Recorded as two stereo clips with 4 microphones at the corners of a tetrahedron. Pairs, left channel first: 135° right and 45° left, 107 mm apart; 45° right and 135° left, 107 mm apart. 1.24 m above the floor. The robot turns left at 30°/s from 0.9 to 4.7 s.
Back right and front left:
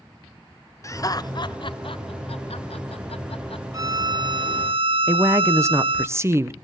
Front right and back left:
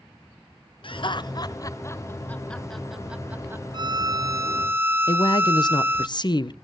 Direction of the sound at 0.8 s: 80° right.